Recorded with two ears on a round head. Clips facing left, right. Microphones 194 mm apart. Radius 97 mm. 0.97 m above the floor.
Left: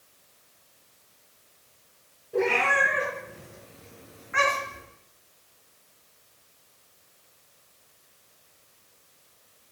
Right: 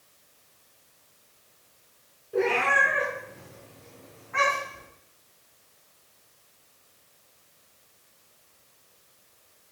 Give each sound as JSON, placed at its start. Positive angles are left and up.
{"t": 2.3, "sound": "a cat meowing", "side_deg": -10, "distance_m": 2.5}